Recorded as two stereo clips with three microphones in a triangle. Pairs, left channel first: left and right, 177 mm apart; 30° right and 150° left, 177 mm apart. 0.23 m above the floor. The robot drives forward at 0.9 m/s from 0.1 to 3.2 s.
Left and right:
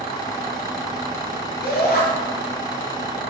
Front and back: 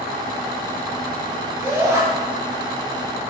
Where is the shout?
75° left, 3.5 m; by 2.0 s 80° left, 3.5 m.